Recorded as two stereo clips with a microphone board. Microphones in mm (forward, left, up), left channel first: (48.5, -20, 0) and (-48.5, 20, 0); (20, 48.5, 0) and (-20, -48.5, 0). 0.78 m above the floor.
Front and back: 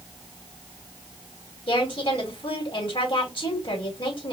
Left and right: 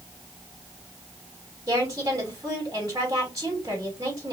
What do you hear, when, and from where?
1.7 s a woman speaking: 55° right, 2.5 m